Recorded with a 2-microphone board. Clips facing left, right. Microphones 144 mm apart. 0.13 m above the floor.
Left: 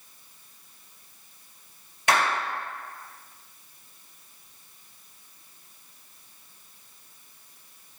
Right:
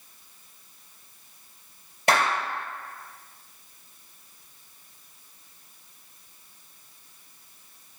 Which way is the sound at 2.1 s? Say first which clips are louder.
Right 1 dB; 35° right (ahead or behind).